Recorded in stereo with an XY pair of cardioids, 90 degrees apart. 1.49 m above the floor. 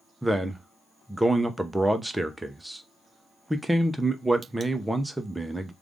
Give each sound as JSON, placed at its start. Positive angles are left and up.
{"t": 0.2, "sound": "a man speaking", "azimuth_deg": -10, "distance_m": 0.8}